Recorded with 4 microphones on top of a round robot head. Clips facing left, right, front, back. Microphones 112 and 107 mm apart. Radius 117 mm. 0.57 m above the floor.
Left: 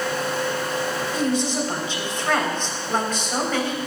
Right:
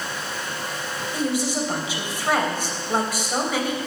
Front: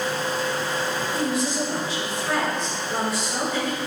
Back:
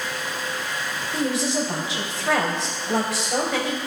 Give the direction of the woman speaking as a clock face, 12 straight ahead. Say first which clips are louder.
Even, back 4 dB; 6 o'clock.